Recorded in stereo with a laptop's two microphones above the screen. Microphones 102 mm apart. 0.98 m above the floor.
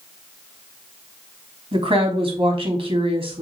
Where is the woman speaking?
65° right (ahead or behind), 1.5 m.